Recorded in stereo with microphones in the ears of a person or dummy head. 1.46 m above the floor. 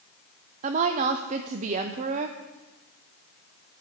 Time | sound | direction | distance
0.6 | a woman speaking | 40° right (ahead or behind) | 0.5 m